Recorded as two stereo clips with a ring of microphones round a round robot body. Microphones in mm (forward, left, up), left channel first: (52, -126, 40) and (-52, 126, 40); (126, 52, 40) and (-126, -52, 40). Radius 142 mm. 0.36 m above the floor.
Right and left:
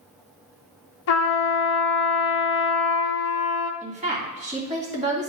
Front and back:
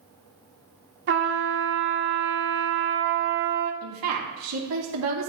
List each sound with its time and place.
1.1 s a trumpet: 105° right, 0.8 m
3.8 s a woman speaking: 175° left, 2.5 m